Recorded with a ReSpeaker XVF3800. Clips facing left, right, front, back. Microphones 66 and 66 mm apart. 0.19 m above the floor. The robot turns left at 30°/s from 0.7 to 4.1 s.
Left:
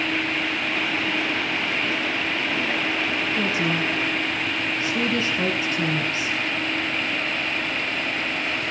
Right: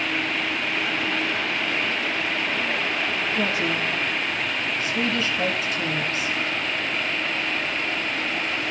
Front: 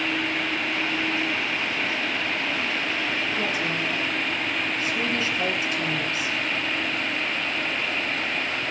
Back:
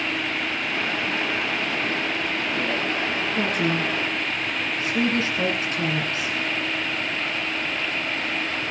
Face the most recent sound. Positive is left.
turn(degrees=140)